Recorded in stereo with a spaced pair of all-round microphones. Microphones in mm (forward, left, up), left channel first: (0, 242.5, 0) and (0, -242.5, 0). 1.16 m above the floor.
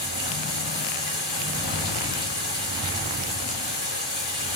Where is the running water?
55° left (ahead or behind), 5.5 m.